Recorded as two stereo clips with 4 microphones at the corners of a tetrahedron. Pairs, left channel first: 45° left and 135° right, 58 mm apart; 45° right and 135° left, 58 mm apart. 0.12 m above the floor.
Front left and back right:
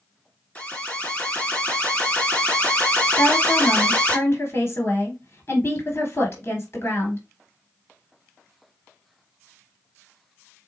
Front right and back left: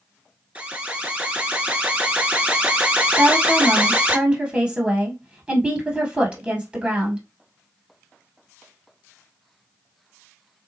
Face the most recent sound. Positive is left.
turn(degrees=70)